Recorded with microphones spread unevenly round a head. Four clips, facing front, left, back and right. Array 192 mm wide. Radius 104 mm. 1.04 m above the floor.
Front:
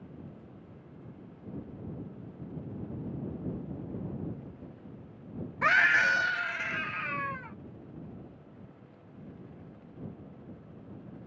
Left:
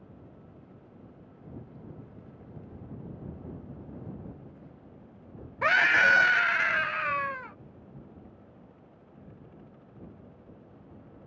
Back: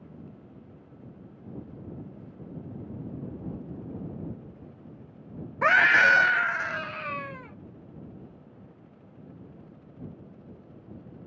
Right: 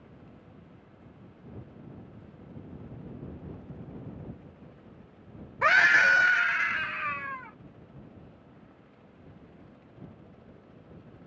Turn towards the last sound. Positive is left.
turn(degrees=125)